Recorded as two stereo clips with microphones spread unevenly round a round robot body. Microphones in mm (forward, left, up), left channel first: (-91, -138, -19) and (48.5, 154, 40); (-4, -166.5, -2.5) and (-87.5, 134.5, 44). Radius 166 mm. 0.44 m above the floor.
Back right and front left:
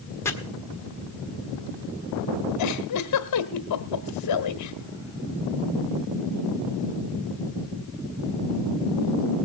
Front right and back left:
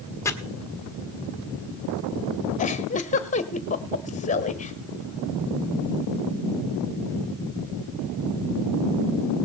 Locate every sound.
0.2 s chopping: 100° right, 1.3 m
2.6 s a giggle: 135° right, 1.5 m